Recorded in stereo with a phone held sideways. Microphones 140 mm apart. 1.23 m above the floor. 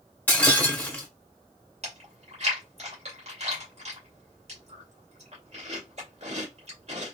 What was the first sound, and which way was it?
Breaking glass, 15° left (ahead or behind).